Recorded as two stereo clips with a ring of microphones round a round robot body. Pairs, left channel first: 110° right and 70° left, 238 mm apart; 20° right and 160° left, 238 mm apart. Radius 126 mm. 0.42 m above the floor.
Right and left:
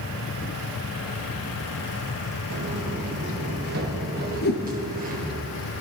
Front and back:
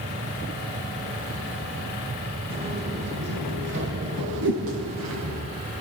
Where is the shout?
I don't hear a shout.